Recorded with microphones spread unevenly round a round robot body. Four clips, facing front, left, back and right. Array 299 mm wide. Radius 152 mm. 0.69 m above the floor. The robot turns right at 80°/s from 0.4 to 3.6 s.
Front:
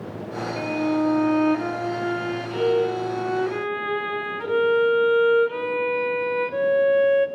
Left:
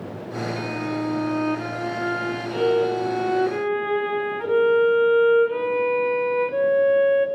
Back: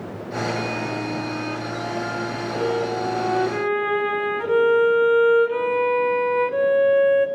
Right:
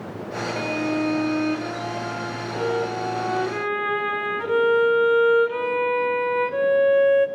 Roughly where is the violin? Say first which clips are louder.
Right 5 dB, front 4 dB; right.